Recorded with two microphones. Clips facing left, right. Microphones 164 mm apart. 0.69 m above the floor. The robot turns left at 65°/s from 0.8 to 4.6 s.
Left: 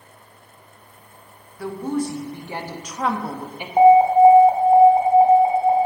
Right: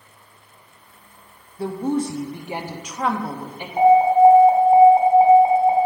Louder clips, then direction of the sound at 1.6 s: Right 2 dB; 25° right (ahead or behind).